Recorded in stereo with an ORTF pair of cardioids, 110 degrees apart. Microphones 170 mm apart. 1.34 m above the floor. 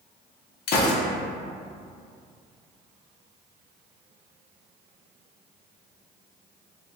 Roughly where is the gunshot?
Ahead left.